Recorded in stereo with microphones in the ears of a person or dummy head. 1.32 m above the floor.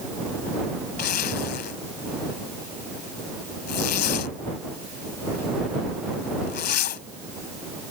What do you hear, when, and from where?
1.0 s a zipper: 55° left (ahead or behind)